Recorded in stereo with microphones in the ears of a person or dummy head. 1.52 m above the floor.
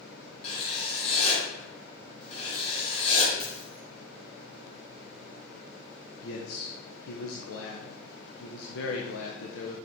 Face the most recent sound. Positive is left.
turn(degrees=75)  # may be behind; listen again after turning